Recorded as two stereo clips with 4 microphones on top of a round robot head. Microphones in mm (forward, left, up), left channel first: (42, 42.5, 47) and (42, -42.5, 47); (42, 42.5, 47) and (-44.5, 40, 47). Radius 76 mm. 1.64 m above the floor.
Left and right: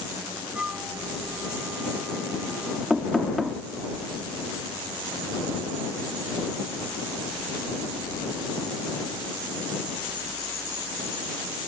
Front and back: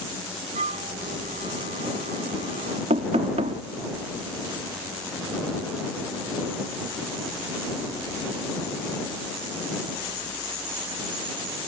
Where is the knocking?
Straight behind.